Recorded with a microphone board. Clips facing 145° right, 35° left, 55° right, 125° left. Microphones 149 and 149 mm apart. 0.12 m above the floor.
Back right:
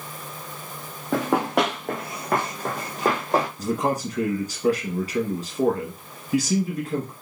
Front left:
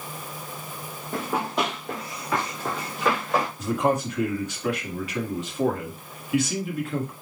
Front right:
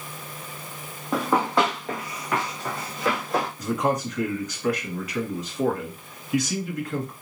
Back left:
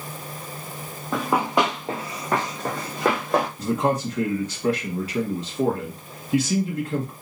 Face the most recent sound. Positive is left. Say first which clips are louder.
# front left 1 dB, back left 2 dB
turn(degrees=175)